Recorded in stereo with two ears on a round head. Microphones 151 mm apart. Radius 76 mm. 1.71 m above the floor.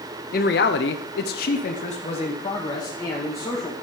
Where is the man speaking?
55° left (ahead or behind), 0.9 m; by 3.7 s 15° left (ahead or behind), 2 m.